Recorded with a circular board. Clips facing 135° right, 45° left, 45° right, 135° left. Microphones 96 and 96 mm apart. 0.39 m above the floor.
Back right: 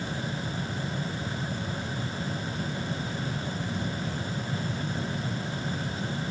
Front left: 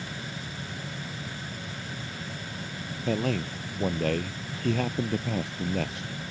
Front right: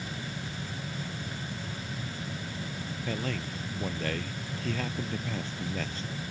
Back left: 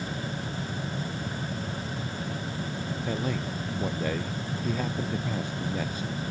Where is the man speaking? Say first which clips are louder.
Front left 5 dB, back left 3 dB; 60° left.